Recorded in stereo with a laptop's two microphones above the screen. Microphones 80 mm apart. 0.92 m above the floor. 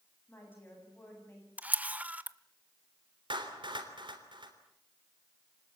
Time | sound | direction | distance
0.3 | a woman speaking | 25° left (ahead or behind) | 8 m
1.6 | a camera shutter | 20° right (ahead or behind) | 0.9 m
3.3 | a clap | 80° right | 3 m